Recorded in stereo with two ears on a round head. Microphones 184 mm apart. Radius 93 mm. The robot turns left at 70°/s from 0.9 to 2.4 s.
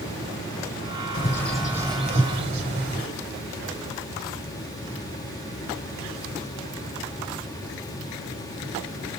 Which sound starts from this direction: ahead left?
A bird, at 1.1 s.